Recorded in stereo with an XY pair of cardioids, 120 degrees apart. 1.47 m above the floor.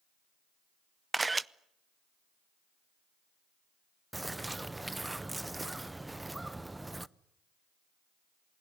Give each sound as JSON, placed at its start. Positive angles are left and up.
{"t": 1.1, "sound": "a camera shutter", "azimuth_deg": -20, "distance_m": 0.6}
{"t": 4.1, "sound": "a bird", "azimuth_deg": -10, "distance_m": 0.6}